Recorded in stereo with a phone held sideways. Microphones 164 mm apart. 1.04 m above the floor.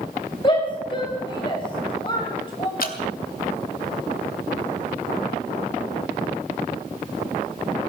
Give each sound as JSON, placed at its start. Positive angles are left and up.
{"t": 0.4, "sound": "a shout", "side_deg": 30, "distance_m": 5.0}
{"t": 2.8, "sound": "dripping", "side_deg": 65, "distance_m": 1.7}